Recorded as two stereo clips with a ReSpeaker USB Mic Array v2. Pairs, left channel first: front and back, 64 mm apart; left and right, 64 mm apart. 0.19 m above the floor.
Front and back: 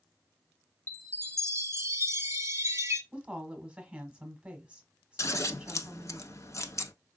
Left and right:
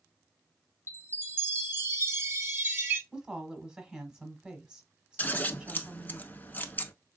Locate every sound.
0.9 s a chime: 140° right, 0.7 m
3.1 s a woman speaking: 140° right, 1.2 m
5.2 s scissors: 30° left, 0.6 m